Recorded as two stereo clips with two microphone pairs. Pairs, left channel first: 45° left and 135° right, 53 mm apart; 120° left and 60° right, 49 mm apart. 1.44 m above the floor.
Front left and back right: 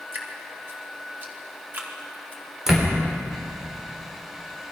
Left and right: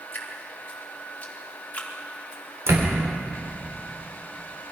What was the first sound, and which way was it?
Dripping, straight behind.